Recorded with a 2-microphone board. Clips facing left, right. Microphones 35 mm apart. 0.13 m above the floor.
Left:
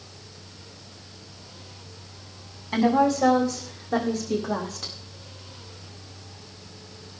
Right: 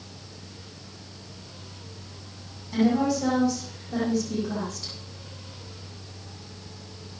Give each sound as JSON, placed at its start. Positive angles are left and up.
{"t": 2.7, "sound": "a woman speaking", "side_deg": 55, "distance_m": 5.5}